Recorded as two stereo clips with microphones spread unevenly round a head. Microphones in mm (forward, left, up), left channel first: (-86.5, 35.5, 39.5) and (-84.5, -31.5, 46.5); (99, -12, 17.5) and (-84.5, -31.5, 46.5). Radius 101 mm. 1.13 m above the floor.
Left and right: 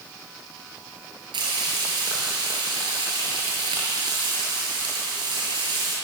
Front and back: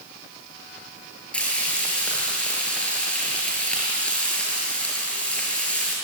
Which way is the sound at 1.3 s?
80° right.